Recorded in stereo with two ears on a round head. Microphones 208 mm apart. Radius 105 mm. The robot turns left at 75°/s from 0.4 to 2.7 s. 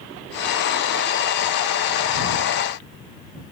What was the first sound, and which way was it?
Only background noise.